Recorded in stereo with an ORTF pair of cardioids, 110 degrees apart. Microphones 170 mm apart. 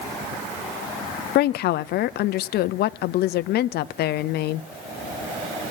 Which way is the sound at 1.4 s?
65° left.